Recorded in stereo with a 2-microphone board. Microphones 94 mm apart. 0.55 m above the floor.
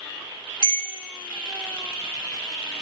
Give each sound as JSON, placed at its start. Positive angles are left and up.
{"t": 0.6, "sound": "a bell", "side_deg": 40, "distance_m": 1.1}